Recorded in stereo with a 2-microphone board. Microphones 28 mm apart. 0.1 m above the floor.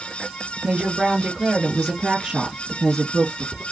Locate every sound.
0.6 s a woman speaking: 30° right (ahead or behind), 1.7 m; by 3.6 s 15° left (ahead or behind), 2 m